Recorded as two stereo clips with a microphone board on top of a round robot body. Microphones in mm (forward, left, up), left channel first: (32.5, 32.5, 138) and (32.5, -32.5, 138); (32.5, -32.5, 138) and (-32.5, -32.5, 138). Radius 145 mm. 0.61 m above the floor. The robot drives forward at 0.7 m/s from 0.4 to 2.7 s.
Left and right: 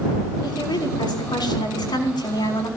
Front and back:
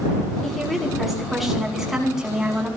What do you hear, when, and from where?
0.4 s a woman speaking: 90° left, 6.5 m; by 2.7 s 100° left, 6.5 m